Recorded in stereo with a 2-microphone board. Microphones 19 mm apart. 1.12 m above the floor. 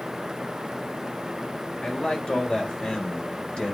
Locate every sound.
1.8 s a man speaking: 55° left (ahead or behind), 4 m